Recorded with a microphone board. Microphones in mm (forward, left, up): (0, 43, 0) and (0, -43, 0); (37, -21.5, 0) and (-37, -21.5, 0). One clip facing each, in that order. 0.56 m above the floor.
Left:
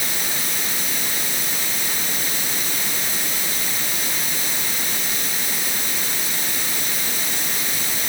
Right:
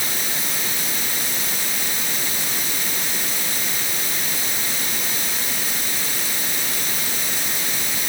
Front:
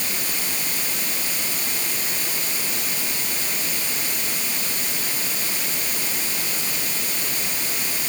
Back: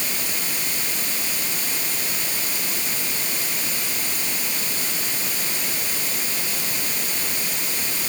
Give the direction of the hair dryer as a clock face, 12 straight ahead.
I don't hear a hair dryer.